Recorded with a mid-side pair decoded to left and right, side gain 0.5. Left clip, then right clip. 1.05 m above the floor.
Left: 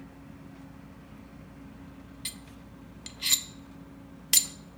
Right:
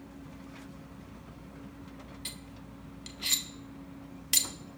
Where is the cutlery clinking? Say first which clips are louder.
Left 3 dB; 25° left, 0.6 m.